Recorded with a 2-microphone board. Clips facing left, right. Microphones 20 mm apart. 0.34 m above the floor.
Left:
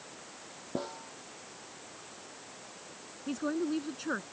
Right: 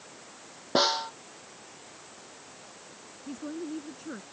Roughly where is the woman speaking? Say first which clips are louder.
Left 4 dB; left.